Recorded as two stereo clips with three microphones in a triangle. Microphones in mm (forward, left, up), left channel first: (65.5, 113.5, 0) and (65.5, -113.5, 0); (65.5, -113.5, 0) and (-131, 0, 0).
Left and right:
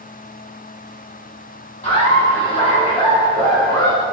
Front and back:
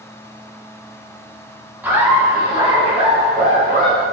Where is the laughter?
75° left, 1.8 m; by 4.0 s 155° left, 2 m.